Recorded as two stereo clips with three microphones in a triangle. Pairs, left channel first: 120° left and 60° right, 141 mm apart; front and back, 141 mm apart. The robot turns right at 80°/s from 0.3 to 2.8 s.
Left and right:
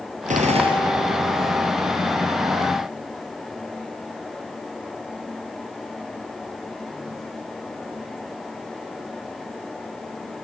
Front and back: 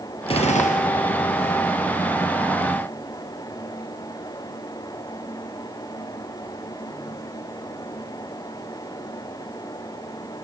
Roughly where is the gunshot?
Ahead right.